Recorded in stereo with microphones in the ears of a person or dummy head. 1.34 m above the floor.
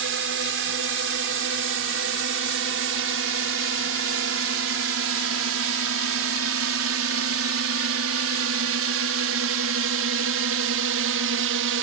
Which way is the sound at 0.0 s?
65° right (ahead or behind).